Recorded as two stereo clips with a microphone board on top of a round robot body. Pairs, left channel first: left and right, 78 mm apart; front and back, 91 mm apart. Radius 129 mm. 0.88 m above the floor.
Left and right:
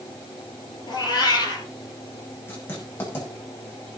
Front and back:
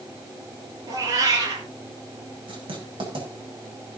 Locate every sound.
0.9 s a cat meowing: 130° left, 4.5 m
2.5 s writing: 155° left, 6 m